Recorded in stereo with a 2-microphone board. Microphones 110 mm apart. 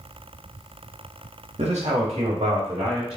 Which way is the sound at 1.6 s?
85° right.